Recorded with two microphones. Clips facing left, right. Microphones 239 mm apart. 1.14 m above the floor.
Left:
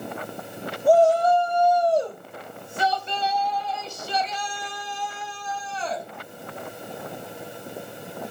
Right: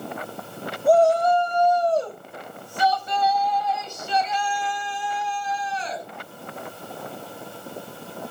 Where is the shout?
Centre (ahead or behind), 6.5 m; by 6.1 s 60° left (ahead or behind), 7.5 m.